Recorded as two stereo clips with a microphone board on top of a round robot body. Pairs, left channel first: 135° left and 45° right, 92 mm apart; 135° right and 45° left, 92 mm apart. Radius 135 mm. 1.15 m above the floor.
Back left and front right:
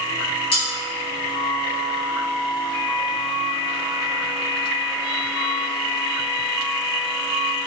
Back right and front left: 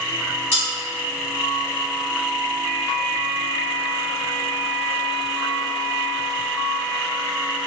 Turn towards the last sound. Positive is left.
turn(degrees=155)